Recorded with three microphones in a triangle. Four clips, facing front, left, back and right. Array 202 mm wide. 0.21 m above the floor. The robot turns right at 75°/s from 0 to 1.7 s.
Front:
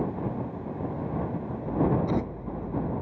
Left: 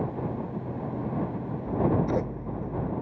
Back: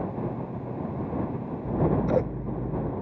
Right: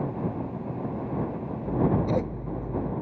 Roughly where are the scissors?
Behind.